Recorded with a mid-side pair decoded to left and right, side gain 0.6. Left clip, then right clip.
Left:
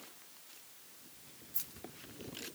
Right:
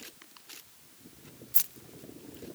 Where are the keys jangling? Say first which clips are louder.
Right 9 dB; 60° right, 1.0 m; by 2.5 s 45° right, 1.7 m.